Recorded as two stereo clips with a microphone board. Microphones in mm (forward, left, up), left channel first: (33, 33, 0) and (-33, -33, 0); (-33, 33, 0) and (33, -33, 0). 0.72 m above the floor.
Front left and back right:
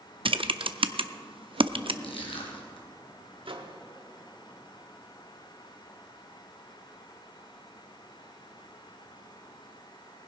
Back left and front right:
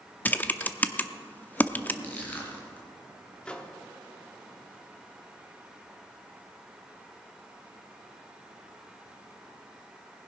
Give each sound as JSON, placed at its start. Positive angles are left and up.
{"t": 0.2, "sound": "typing on a keyboard", "azimuth_deg": -155, "distance_m": 0.5}
{"t": 2.0, "sound": "crushing", "azimuth_deg": 65, "distance_m": 2.5}
{"t": 3.5, "sound": "a microwave", "azimuth_deg": -145, "distance_m": 1.0}